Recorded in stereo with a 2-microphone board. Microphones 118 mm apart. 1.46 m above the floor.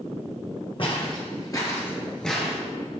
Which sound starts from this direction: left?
Footsteps, at 0.8 s.